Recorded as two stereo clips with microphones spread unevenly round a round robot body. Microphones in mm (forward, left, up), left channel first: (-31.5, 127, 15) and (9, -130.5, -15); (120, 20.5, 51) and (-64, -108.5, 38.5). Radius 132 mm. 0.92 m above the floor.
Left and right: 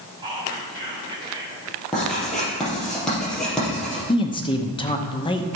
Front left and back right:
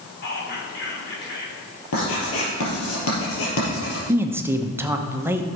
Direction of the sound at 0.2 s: 5° right.